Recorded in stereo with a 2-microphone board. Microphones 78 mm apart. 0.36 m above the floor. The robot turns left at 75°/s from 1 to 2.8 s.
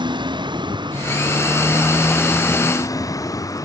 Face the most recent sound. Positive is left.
turn(degrees=130)